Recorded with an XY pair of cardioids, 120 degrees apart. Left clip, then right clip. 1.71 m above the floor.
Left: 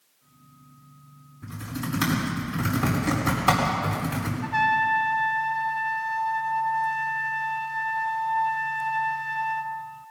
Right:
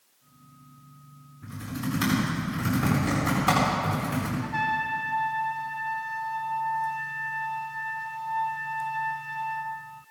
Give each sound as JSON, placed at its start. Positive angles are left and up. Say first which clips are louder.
{"t": 1.4, "sound": "typing on a keyboard", "louder": "even", "azimuth_deg": 20, "distance_m": 6.0}
{"t": 4.4, "sound": "a trumpet", "louder": "left 7 dB", "azimuth_deg": 35, "distance_m": 1.1}